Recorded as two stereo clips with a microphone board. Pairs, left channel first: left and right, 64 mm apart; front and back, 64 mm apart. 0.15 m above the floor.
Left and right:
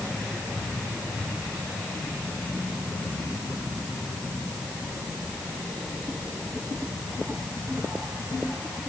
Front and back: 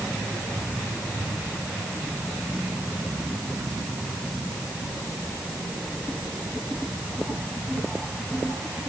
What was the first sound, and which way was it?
Only background noise.